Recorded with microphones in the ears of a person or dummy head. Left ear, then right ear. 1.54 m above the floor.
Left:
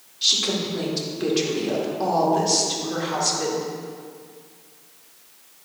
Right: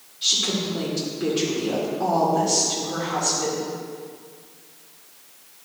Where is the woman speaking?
30° left (ahead or behind), 1.9 m.